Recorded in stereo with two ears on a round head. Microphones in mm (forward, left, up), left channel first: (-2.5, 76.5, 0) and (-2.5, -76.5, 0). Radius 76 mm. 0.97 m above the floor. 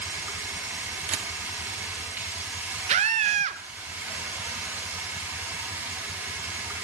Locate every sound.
0.0 s running water: 10° right (ahead or behind), 3 m
1.1 s a camera shutter: 40° right (ahead or behind), 0.9 m
2.9 s a scream: 40° right (ahead or behind), 0.7 m